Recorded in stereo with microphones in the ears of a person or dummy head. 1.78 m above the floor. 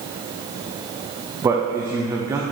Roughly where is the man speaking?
Centre.